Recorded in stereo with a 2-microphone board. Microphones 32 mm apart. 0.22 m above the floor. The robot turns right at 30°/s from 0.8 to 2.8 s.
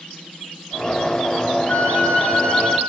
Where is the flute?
125° left, 2.5 m; by 2.8 s 155° left, 2.5 m.